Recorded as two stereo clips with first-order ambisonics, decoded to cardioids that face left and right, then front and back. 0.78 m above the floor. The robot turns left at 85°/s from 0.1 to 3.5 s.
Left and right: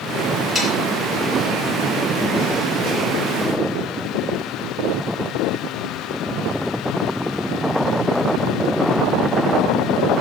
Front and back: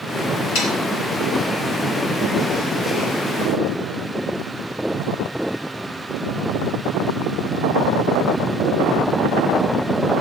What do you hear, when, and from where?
0.6 s sawing: 5° right, 6.5 m; by 0.7 s 20° right, 6.5 m